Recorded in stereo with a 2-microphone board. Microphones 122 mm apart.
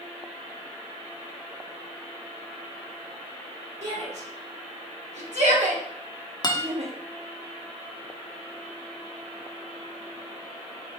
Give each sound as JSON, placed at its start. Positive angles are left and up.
{"t": 3.8, "sound": "a shout", "side_deg": -65, "distance_m": 3.0}
{"t": 6.4, "sound": "a guitar", "side_deg": 35, "distance_m": 1.1}